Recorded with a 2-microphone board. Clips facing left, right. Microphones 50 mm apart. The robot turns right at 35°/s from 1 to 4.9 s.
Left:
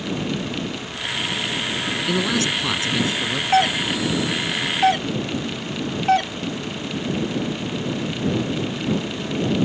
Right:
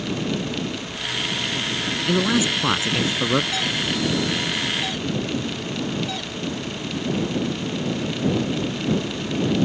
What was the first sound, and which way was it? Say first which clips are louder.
A man speaking: right 2 dB; 175° right.